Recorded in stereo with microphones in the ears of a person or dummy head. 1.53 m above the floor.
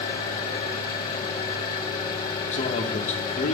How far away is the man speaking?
About 1.2 m.